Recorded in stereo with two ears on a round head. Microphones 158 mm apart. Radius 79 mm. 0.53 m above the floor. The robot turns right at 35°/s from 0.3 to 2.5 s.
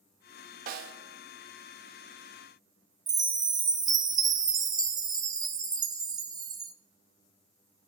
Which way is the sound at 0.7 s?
50° right (ahead or behind).